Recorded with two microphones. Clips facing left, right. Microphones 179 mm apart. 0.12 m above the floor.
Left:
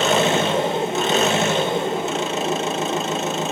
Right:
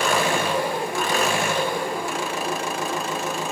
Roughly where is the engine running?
Left.